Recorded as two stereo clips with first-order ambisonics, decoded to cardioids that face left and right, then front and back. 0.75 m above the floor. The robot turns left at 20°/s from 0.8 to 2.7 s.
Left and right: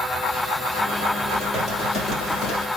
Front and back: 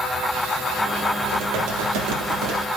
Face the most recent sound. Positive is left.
turn(degrees=165)